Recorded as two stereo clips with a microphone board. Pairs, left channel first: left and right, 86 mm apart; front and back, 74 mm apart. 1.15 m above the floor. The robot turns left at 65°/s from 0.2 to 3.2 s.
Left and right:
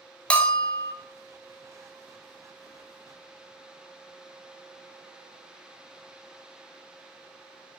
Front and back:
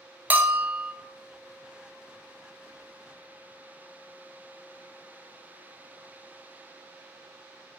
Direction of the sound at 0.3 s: 150° left.